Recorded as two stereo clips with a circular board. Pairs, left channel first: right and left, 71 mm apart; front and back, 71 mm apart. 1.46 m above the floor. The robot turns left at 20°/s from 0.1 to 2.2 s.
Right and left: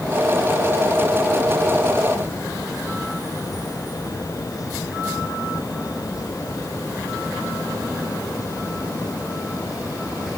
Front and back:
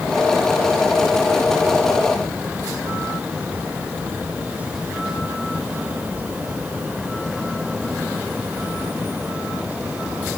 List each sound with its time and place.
Only background noise.